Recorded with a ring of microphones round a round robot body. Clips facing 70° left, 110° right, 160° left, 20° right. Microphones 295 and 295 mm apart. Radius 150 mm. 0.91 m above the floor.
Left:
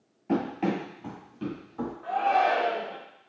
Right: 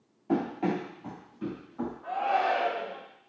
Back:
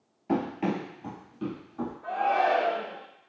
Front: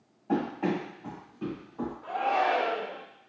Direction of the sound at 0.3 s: 130° left.